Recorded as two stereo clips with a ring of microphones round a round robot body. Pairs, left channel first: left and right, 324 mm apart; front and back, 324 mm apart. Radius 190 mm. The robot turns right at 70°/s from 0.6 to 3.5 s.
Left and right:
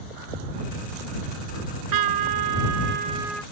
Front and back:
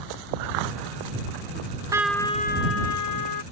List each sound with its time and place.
1.6 s a trumpet: 125° right; by 3.4 s 5° left